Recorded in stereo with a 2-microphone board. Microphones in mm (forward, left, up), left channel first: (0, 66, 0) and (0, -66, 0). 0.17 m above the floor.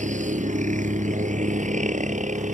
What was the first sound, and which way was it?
A helicopter, 65° right (ahead or behind).